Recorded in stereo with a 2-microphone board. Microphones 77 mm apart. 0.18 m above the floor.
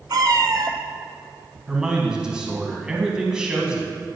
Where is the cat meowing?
55° right (ahead or behind), 0.6 m.